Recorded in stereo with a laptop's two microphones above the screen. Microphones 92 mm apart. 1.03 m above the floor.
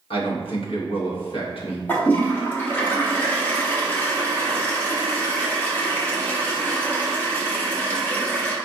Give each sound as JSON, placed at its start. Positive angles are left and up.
{"t": 0.1, "sound": "a man speaking", "side_deg": 75, "distance_m": 1.1}
{"t": 1.9, "sound": "a toilet flushing", "side_deg": 20, "distance_m": 0.8}